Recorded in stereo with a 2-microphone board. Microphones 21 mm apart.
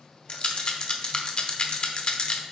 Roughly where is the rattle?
Left.